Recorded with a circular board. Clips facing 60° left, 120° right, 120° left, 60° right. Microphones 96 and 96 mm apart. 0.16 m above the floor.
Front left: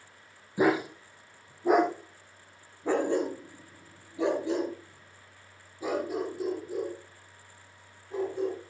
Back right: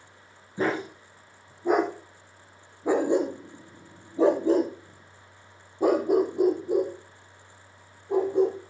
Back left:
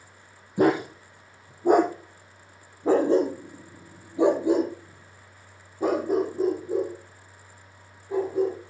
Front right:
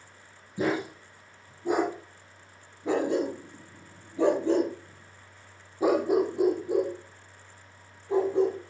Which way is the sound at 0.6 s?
135° left.